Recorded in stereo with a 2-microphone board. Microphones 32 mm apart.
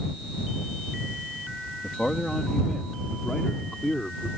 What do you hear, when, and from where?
1.8 s a man speaking: 30° left (ahead or behind); by 4.3 s 25° left (ahead or behind)